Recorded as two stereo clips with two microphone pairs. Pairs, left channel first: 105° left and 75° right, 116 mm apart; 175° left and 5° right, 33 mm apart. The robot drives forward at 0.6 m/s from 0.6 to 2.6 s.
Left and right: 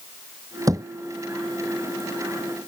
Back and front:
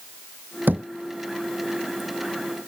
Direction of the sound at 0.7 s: 15° right.